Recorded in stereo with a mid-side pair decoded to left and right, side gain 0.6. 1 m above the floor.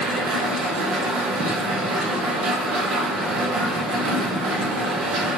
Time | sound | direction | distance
0.0 | a machine running | 65° right | 1.0 m